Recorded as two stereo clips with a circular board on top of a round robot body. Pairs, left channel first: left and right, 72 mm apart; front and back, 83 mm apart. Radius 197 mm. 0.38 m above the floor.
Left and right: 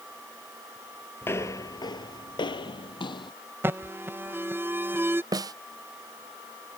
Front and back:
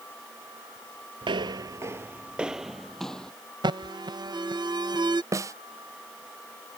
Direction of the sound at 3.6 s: 150° right.